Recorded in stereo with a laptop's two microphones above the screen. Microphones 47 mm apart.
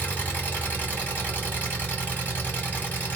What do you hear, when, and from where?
0.0 s an engine running: 35° left (ahead or behind), 1.9 m